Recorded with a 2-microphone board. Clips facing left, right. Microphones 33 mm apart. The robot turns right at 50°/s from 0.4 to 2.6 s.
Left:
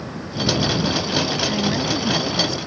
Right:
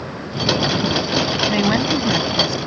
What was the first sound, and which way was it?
A woman speaking, 50° right.